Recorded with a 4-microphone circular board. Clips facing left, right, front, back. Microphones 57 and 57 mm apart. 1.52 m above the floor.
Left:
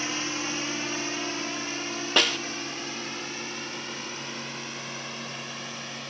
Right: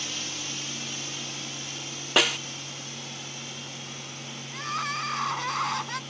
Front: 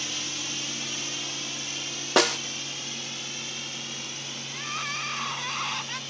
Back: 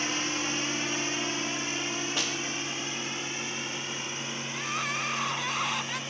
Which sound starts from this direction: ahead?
A snare drum, at 2.2 s.